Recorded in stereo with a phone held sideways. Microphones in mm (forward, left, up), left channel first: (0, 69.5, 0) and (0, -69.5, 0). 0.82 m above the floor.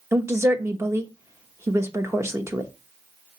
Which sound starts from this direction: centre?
A woman speaking, at 0.1 s.